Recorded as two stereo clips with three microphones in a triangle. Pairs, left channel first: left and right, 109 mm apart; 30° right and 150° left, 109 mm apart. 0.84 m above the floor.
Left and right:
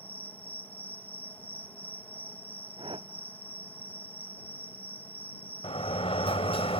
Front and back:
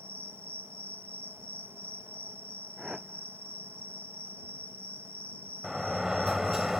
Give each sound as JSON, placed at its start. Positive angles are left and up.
{"t": 0.0, "sound": "an insect", "azimuth_deg": 135}
{"t": 2.8, "sound": "a whoosh", "azimuth_deg": -125}
{"t": 5.6, "sound": "a sliding door", "azimuth_deg": 65}